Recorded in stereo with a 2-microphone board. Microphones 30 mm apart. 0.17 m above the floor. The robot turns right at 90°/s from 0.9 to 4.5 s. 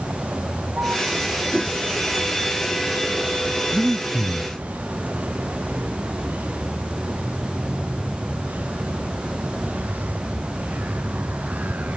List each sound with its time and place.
0.0 s a vehicle: 85° right; by 12.0 s 120° right
1.5 s a whoosh: 15° right (ahead or behind); by 1.8 s 35° right (ahead or behind)
3.7 s breathing: 15° right (ahead or behind); by 4.5 s 30° right (ahead or behind)